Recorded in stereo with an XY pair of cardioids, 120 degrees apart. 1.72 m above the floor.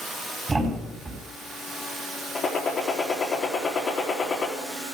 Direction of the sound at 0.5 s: 25° right.